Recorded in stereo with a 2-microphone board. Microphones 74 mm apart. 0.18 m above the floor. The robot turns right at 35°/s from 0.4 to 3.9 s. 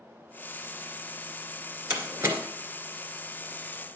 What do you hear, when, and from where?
1.9 s a door slam: 20° right (ahead or behind), 2.5 m; by 2.4 s 35° right (ahead or behind), 2.5 m